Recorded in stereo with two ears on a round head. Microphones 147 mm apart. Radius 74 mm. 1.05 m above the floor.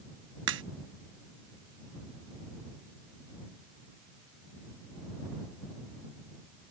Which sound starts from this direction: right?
A crack, at 0.5 s.